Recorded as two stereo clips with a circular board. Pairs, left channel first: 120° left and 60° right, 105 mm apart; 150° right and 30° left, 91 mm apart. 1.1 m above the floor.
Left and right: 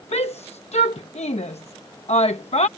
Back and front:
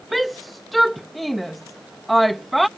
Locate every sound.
0.1 s a shout: 120° left